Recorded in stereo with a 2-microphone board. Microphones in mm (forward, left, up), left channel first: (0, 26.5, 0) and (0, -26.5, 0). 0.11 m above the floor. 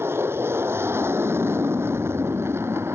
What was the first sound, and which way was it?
An aircraft, 55° right (ahead or behind).